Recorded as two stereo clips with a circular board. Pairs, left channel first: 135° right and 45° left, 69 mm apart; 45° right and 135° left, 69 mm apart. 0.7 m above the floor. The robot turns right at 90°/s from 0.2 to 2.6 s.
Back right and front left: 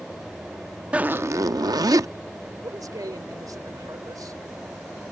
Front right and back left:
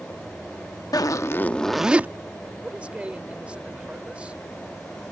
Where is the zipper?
25° right; by 2.1 s 75° left.